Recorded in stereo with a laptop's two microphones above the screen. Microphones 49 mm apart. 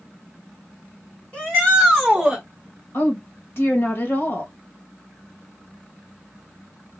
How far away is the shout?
About 1.3 m.